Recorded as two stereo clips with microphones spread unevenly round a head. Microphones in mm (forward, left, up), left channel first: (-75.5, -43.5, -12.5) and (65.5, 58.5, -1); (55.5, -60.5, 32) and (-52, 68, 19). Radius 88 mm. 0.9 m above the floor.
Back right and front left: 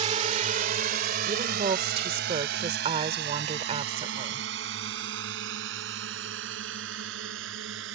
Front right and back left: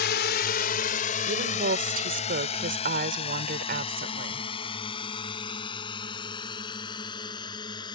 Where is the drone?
20° right; by 8.0 s 15° left.